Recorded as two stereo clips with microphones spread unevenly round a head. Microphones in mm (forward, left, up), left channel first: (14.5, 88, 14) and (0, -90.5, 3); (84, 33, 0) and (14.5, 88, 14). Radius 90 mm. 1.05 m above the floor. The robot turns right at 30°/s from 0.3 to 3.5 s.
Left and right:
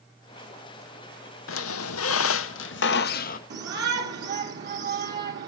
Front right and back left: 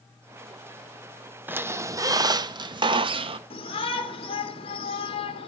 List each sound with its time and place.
1.5 s a squeak: 75° left, 0.6 m; by 3.4 s 130° left, 0.6 m
3.5 s a shout: 65° right, 1.8 m